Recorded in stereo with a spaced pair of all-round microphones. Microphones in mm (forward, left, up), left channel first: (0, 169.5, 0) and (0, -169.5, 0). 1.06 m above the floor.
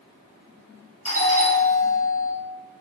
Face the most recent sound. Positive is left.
turn(degrees=20)  # may be behind; listen again after turning